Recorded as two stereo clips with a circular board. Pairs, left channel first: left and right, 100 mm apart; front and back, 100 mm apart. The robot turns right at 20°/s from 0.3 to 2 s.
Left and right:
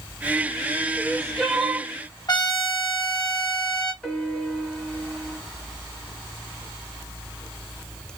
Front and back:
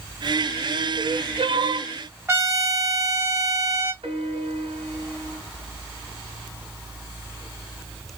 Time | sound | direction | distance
1.0 | crying | 170° left | 1.1 m
2.3 | a trumpet | 125° left | 1.9 m
4.0 | a piano | 170° left | 2.5 m